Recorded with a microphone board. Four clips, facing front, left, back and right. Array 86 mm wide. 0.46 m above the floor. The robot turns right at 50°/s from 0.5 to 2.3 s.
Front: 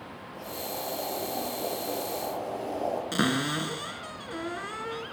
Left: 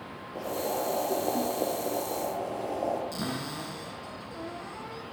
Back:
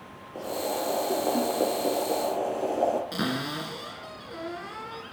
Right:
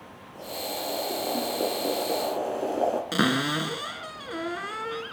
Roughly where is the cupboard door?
Right.